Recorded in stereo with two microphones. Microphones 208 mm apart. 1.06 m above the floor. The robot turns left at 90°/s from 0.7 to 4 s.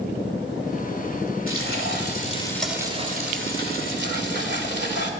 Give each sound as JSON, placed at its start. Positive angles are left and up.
{"t": 1.5, "sound": "frying", "azimuth_deg": 105, "distance_m": 2.5}